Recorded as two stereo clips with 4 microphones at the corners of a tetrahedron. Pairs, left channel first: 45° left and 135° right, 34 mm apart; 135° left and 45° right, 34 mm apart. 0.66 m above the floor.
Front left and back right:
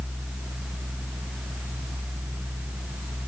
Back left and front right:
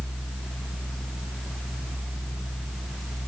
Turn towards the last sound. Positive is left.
No sound to turn to.